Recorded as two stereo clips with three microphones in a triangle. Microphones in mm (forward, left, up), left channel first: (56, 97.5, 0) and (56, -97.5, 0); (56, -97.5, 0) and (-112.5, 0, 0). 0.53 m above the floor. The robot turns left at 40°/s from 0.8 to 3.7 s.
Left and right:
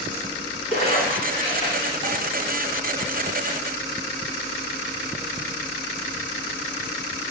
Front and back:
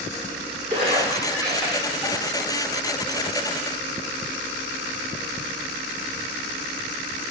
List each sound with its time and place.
0.7 s a splash: 110° left, 1.8 m; by 2.2 s 55° left, 1.8 m